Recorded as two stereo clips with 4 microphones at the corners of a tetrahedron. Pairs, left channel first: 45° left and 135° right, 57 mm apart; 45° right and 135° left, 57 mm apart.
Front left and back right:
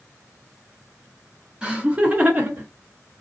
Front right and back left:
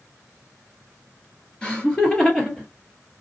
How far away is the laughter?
About 1.8 m.